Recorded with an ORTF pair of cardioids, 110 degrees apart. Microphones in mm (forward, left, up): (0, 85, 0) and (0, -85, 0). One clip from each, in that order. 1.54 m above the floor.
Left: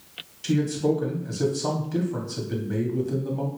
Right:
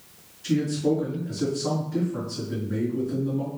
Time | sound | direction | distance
0.4 | a man speaking | 65° left | 1.4 m